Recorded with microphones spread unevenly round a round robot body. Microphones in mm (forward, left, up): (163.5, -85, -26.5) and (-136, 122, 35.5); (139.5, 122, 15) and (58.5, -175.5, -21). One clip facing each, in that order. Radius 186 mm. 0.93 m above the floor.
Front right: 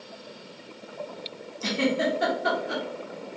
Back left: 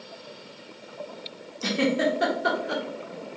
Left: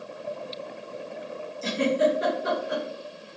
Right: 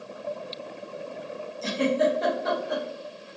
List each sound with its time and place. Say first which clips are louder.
1.6 s a giggle: back left 1 dB, even; 145° left, 1.0 m